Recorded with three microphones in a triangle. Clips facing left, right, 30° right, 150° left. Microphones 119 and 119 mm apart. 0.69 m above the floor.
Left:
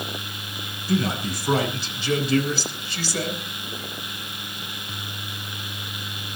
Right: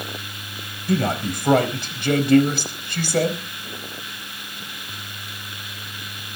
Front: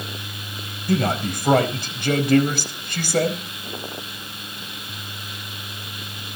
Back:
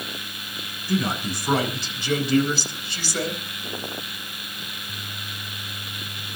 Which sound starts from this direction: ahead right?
A man speaking, at 0.9 s.